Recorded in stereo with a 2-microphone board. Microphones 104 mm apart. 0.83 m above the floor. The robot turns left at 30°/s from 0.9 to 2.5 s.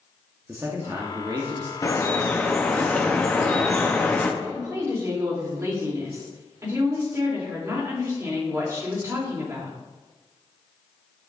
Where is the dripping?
30° left (ahead or behind), 0.9 m; by 4.3 s 15° left (ahead or behind), 0.9 m.